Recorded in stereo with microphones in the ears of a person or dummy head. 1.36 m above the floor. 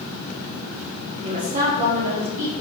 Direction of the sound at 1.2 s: 35° right (ahead or behind).